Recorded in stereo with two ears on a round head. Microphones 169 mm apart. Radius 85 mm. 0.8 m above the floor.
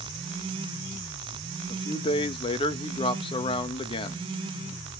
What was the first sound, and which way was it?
A man speaking, 25° left (ahead or behind).